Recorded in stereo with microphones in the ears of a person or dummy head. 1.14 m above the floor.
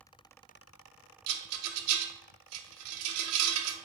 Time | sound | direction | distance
1.3 | a rattle | 80° right | 0.9 m